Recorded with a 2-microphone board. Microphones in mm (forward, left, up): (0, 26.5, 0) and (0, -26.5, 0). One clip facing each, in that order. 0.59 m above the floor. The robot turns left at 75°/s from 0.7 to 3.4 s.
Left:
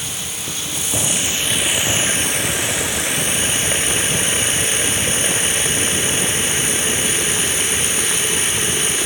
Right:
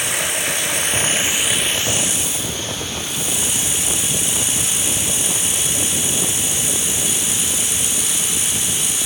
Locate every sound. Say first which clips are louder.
0.0 s running water: right 7 dB; 115° right; by 9.1 s 45° left